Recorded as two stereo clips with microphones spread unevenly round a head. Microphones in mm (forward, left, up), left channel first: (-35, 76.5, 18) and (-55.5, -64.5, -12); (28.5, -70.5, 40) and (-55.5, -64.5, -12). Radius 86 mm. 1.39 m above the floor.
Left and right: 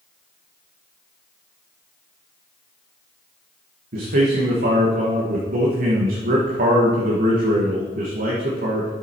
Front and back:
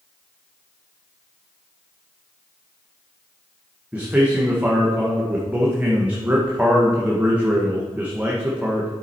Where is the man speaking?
110° right, 1.4 m.